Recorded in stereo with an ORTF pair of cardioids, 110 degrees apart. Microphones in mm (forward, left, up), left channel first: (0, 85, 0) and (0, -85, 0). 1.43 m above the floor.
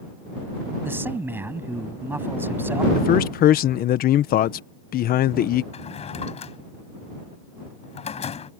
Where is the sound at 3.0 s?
65° left.